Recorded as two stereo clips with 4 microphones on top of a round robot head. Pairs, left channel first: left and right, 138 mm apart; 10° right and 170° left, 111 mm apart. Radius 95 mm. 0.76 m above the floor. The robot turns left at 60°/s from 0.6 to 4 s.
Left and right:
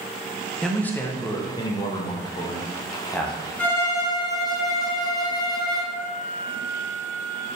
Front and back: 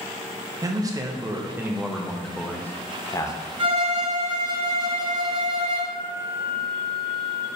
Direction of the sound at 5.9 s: 60° left.